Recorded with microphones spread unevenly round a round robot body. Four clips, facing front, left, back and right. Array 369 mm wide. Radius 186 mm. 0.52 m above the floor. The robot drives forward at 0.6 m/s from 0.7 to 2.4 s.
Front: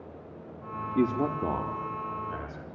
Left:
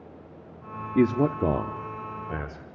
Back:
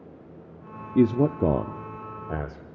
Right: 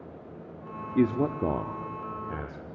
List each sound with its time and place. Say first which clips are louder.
0.9 s a man speaking: left 3 dB, back 6 dB; 145° left, 0.7 m; by 2.6 s 170° left, 1.3 m